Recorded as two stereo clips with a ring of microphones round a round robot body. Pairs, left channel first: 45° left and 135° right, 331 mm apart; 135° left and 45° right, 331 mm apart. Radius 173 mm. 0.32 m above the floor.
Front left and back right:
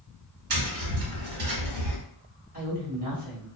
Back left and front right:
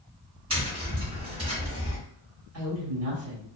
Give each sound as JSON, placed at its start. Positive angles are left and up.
{"t": 0.5, "sound": "tapping", "azimuth_deg": -120, "distance_m": 1.5}
{"t": 2.5, "sound": "a woman speaking", "azimuth_deg": -75, "distance_m": 1.8}